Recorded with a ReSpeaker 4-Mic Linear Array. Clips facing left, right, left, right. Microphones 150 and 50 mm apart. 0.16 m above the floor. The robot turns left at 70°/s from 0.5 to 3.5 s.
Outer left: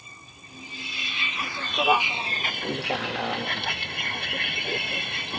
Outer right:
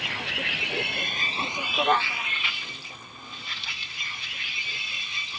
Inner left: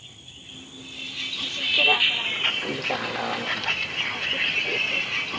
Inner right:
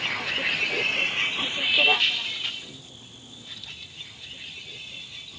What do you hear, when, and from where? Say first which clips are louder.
0.0 s a vehicle: outer right 16 dB, inner right 20 dB; 90° right; by 5.4 s 60° left